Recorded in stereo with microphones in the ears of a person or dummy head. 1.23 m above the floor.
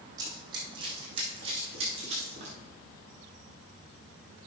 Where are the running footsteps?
25° right (ahead or behind), 4.5 m; by 2.5 s 40° right (ahead or behind), 6.5 m.